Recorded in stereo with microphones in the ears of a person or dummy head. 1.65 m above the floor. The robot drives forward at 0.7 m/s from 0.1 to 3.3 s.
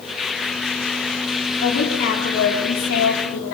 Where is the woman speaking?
60° left (ahead or behind), 5 m; by 3.5 s 75° left (ahead or behind), 4.5 m.